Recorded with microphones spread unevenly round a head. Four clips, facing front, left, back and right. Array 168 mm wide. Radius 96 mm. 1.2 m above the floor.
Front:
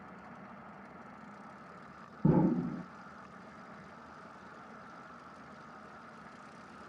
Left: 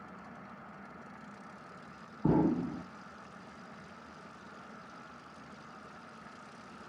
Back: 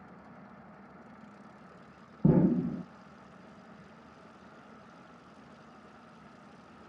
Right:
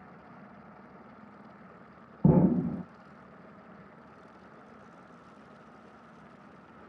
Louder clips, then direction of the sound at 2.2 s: Right 4 dB, back 3 dB; 125° right.